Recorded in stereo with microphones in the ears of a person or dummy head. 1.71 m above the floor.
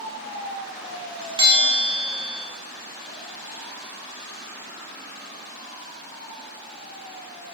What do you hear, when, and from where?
1.4 s a bell: 25° right (ahead or behind), 4 m